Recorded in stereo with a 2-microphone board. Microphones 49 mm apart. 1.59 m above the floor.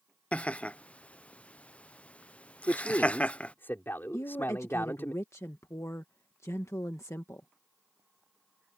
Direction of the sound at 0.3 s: 25° left (ahead or behind).